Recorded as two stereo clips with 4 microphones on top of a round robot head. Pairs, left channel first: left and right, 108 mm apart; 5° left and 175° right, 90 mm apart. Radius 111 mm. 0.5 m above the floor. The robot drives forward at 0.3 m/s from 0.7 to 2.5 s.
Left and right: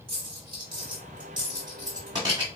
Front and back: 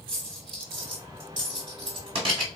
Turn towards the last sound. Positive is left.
turn(degrees=-150)